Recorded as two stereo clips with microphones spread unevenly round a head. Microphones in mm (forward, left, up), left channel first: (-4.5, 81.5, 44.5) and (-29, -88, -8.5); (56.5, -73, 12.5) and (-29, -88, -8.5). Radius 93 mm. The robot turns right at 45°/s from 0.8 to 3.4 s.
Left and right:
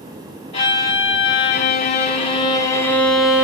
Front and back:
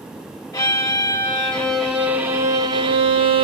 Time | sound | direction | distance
0.5 | a violin | 45° left | 1.7 m